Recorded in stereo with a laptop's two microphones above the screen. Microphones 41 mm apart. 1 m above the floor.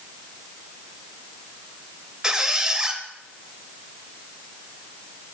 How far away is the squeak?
About 0.5 m.